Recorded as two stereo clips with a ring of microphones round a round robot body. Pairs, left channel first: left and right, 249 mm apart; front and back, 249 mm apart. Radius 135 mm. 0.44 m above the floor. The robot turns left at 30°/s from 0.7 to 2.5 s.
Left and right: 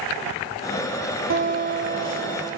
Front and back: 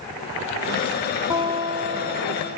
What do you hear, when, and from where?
1.3 s a guitar: 105° right, 0.6 m; by 2.6 s 145° right, 0.6 m